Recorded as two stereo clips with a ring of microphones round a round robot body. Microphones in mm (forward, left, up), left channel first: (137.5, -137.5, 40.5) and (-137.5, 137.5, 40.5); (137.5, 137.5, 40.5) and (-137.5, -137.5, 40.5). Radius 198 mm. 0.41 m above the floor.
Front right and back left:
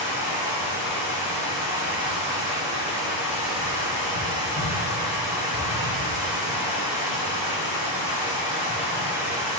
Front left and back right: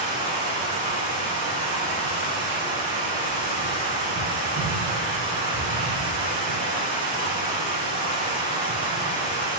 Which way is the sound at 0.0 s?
70° right.